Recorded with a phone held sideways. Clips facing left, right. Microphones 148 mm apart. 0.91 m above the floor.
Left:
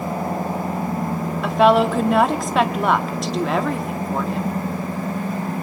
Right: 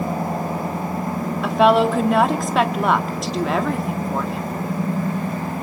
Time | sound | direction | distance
1.4 | a woman speaking | centre (ahead or behind) | 2.0 m